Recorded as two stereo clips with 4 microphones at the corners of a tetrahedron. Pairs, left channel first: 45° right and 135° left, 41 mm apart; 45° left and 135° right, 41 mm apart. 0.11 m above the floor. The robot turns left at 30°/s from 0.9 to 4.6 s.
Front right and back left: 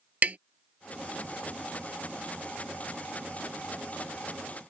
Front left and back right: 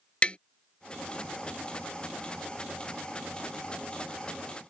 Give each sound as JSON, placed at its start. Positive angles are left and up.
{"t": 0.2, "sound": "tapping", "azimuth_deg": 100}